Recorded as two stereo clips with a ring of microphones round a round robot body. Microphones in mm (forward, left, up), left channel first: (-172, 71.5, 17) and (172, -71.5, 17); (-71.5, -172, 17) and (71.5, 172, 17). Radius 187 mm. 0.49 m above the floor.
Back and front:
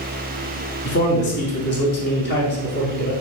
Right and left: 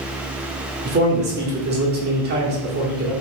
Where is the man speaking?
115° left, 1.1 m.